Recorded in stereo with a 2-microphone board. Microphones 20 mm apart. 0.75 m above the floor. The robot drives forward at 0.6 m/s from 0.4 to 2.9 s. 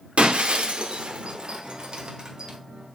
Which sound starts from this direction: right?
Breaking glass, at 0.2 s.